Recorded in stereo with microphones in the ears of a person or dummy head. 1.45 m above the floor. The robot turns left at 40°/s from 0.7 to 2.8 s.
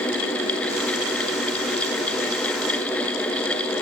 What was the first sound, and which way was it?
Only background noise.